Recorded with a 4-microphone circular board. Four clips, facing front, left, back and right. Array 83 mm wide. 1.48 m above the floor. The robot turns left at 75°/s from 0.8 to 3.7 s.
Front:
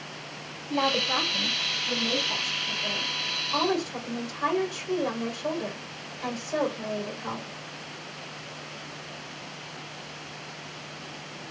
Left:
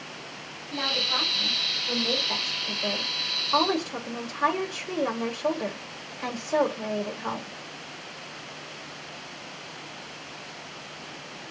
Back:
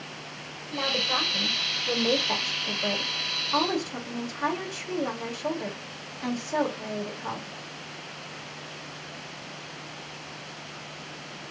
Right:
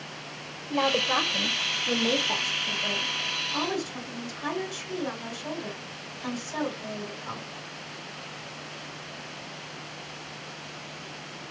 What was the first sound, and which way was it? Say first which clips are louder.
A woman speaking: right 6 dB, front 4 dB; 50° right.